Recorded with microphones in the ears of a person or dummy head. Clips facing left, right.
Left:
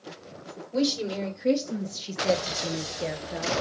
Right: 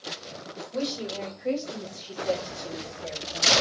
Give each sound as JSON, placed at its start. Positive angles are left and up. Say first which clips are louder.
{"t": 0.7, "sound": "a woman speaking", "louder": "left 5 dB", "side_deg": 30, "distance_m": 2.5}